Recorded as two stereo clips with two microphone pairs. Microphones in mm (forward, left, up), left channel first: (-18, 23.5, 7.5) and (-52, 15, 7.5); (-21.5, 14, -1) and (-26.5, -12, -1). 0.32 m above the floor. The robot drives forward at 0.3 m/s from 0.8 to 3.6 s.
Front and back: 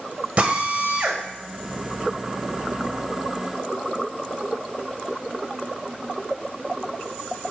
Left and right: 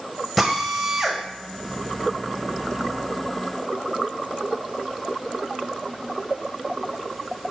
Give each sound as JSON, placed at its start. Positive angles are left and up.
{"t": 0.4, "sound": "a drill", "azimuth_deg": 175, "distance_m": 1.4}